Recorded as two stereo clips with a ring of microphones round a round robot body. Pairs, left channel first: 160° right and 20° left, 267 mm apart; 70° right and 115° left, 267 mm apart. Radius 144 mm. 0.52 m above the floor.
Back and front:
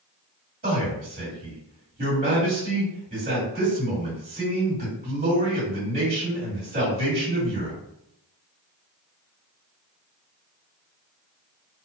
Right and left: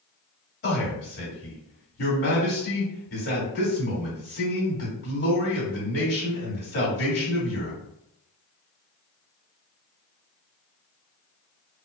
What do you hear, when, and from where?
0.6 s a man speaking: 30° right, 1.6 m